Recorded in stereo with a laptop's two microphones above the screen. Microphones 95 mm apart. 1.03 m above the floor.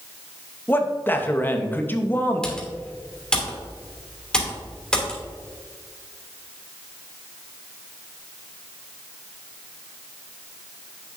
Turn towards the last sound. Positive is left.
turn(degrees=10)  # may be behind; listen again after turning